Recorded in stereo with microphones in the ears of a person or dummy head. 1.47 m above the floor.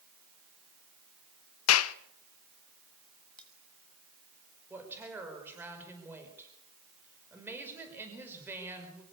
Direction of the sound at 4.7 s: 15° right (ahead or behind).